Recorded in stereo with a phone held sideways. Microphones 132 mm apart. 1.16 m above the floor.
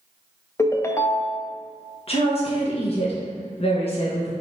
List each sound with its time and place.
0.6 s a ringtone: 20° left (ahead or behind), 0.6 m
2.1 s a woman speaking: 50° left (ahead or behind), 1.3 m